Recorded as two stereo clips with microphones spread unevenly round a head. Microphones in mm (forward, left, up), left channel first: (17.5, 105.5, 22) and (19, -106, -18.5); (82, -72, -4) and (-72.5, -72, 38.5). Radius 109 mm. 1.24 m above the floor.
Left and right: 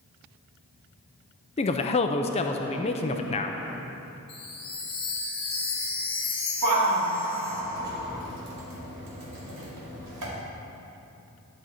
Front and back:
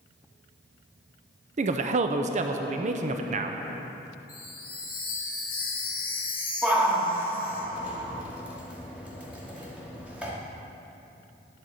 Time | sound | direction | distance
1.6 | a man speaking | 150° left | 0.5 m
4.3 | a chime | 25° left | 1.8 m
6.6 | a shout | 95° right | 2.5 m